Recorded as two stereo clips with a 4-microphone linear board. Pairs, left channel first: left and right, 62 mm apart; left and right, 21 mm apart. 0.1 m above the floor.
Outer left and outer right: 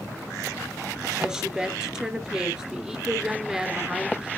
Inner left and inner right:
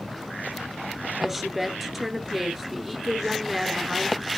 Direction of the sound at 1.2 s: 10° right (ahead or behind).